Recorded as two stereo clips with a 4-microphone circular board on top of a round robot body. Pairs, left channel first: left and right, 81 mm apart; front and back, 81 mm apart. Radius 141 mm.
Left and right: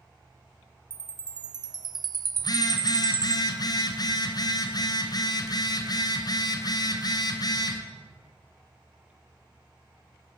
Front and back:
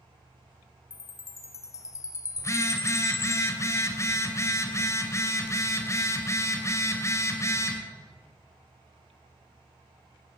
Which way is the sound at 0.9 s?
55° right.